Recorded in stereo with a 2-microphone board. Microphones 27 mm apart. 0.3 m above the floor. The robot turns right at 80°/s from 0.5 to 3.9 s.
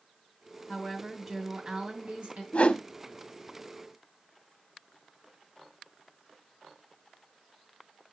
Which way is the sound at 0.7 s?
130° left.